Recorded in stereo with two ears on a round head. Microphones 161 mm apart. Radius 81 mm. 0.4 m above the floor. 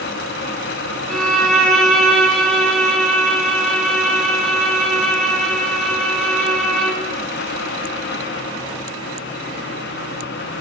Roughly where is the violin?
Centre.